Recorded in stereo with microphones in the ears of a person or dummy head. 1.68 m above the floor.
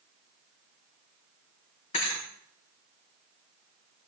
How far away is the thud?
About 3.5 m.